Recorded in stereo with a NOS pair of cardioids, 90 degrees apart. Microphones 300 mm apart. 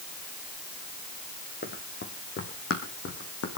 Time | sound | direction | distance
1.6 | running footsteps | 35° left | 3.5 m